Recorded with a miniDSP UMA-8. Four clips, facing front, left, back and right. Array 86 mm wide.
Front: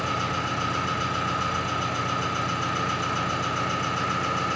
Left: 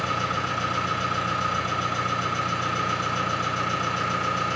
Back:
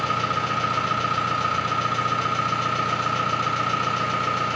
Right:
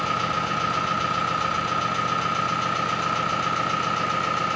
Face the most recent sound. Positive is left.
turn(degrees=-140)